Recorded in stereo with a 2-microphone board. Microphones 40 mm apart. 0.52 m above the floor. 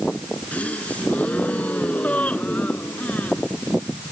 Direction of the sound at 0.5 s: 35° left (ahead or behind).